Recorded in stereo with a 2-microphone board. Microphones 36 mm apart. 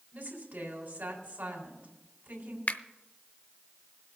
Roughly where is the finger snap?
Left.